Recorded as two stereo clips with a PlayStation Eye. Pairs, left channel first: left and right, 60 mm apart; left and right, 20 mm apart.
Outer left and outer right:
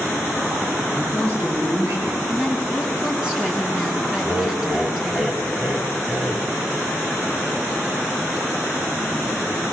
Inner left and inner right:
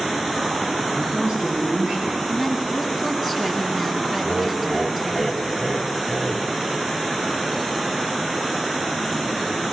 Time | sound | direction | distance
0.9 | a man speaking | 60° right (ahead or behind) | 8.5 m
2.3 | a woman speaking | 15° right (ahead or behind) | 4.5 m
4.2 | laughter | 10° right (ahead or behind) | 1.7 m